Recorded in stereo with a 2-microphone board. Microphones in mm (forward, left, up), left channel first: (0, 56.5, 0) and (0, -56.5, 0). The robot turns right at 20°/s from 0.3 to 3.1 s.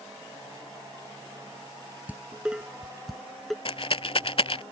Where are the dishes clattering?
15° right (ahead or behind); by 3.5 s centre (ahead or behind).